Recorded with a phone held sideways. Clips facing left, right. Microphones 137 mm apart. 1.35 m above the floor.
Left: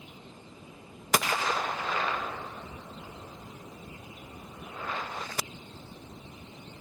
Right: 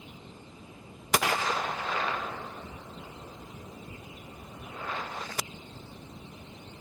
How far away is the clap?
About 2.5 m.